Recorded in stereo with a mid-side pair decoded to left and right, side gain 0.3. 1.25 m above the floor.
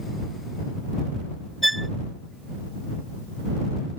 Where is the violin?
10° right.